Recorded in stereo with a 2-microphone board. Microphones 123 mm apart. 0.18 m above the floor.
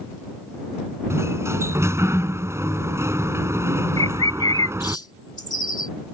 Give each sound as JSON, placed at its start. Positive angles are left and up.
{"t": 1.1, "sound": "a sliding door", "side_deg": -20}
{"t": 4.0, "sound": "a bird", "side_deg": 35}